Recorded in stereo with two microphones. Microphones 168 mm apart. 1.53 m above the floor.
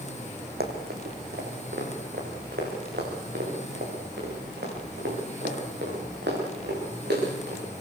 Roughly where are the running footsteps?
Right.